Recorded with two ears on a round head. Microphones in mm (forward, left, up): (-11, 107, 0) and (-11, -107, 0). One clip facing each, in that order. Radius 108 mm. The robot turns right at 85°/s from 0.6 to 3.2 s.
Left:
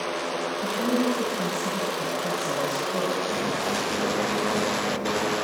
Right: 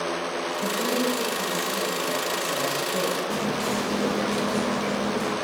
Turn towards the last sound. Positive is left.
turn(degrees=-15)  # may be behind; listen again after turning